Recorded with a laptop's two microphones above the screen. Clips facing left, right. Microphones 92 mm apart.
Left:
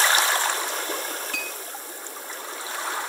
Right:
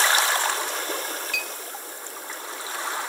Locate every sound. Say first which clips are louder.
1.3 s a clink: even; 35° left (ahead or behind), 0.7 m